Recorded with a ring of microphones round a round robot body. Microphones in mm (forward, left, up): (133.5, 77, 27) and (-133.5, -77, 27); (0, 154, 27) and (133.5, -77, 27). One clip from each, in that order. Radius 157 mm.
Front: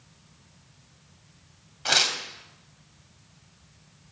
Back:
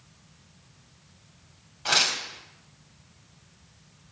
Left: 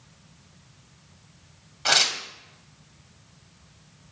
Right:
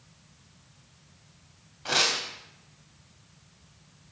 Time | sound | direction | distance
1.9 | tearing paper | 105° left | 3 m